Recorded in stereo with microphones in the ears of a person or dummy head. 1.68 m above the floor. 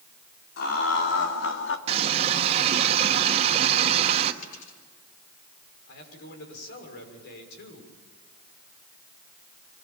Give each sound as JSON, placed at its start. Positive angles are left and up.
{"t": 0.6, "sound": "laughter", "side_deg": 70, "distance_m": 4.0}
{"t": 1.9, "sound": "a running tap", "side_deg": -35, "distance_m": 1.7}
{"t": 4.4, "sound": "a dropped coin", "side_deg": 50, "distance_m": 9.0}
{"t": 5.9, "sound": "a man speaking", "side_deg": 65, "distance_m": 6.5}